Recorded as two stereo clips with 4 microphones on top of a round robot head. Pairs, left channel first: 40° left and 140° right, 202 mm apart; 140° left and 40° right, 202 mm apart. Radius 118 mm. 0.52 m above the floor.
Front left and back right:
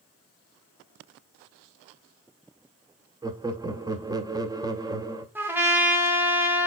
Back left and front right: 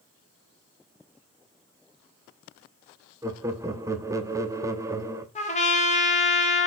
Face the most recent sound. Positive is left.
turn(degrees=145)